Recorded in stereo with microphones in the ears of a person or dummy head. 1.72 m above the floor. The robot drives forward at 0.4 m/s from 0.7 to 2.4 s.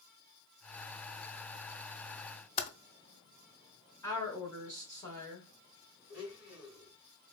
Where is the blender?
50° left (ahead or behind), 1.9 m.